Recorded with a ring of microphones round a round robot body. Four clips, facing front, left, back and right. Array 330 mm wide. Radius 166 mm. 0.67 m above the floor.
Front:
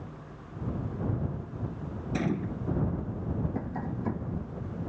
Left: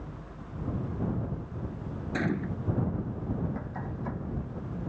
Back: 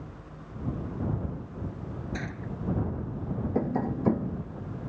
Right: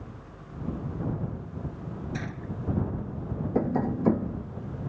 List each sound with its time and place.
2.1 s a gunshot: 50° left
3.5 s tapping: 120° right